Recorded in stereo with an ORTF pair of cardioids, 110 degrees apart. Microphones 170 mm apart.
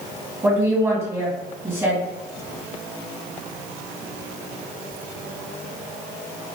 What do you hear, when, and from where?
0.4 s a woman speaking: 15° right, 1.5 m